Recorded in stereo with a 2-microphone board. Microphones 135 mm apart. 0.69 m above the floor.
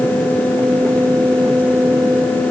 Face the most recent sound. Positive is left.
No sound to turn to.